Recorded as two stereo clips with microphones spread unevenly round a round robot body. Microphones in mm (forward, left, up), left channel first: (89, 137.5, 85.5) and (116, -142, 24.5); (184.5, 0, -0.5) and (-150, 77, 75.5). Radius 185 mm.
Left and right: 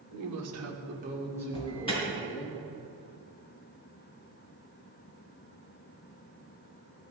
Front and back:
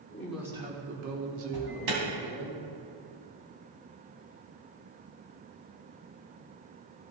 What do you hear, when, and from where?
0.1 s a woman speaking: 90° right, 1.8 m; by 2.5 s 165° left, 2.5 m
1.5 s an alarm: 175° left, 3.5 m